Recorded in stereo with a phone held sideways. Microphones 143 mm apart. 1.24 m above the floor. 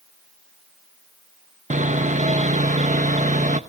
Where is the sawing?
60° right (ahead or behind), 0.9 m.